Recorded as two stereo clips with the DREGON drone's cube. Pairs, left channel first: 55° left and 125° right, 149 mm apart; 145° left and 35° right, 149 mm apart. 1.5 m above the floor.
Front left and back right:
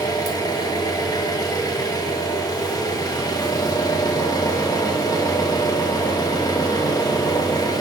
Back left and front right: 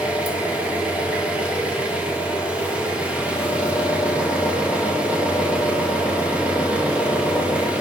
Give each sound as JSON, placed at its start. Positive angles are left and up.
{"t": 0.0, "sound": "an engine running", "azimuth_deg": 35, "distance_m": 0.8}